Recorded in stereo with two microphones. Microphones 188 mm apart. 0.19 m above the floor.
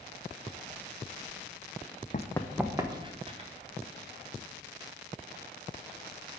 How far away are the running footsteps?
About 0.5 m.